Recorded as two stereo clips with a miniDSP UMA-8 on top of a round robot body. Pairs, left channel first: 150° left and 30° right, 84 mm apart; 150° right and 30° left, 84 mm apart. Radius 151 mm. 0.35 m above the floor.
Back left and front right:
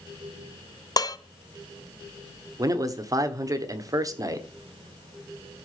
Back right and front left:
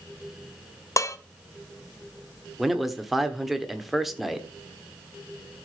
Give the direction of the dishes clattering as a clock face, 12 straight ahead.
6 o'clock.